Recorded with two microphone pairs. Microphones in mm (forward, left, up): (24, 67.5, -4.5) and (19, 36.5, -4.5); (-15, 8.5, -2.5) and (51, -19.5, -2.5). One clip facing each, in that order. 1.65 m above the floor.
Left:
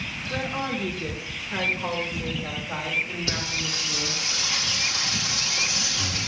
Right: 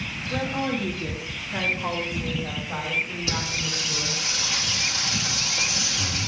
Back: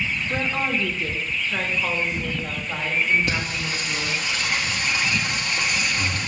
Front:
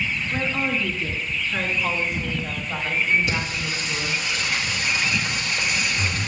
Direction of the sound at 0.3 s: 135° left.